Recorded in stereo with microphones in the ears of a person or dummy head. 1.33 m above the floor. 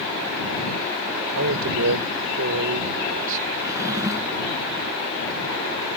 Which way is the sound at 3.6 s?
15° right (ahead or behind).